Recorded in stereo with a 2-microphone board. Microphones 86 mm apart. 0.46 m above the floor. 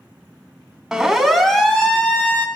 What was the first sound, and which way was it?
A siren, 5° right (ahead or behind).